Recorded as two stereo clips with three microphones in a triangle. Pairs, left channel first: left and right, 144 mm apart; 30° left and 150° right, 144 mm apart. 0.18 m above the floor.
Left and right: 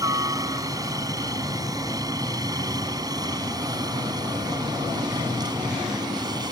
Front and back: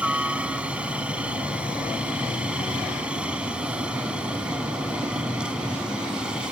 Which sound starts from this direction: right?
A helicopter, at 0.0 s.